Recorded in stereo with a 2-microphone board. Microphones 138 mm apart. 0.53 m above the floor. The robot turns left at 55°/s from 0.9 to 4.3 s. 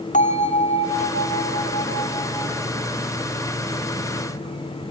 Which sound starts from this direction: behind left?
A bell, at 0.1 s.